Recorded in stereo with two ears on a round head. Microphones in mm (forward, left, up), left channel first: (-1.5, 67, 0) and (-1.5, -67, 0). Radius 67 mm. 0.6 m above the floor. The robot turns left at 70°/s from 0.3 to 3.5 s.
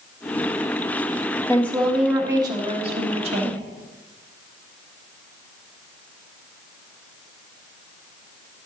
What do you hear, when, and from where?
1.5 s a woman speaking: 25° left, 1.2 m; by 3.6 s 115° right, 1.2 m